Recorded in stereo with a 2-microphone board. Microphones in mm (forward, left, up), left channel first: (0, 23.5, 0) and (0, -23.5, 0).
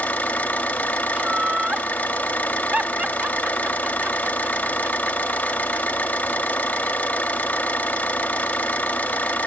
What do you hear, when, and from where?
0.0 s an engine running: 35° left (ahead or behind), 1.7 m
1.1 s laughter: 30° right (ahead or behind), 0.9 m